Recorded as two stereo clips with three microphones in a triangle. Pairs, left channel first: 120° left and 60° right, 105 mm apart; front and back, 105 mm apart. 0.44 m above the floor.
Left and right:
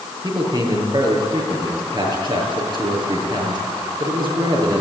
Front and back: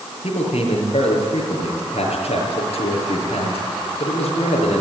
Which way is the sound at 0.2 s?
15° right.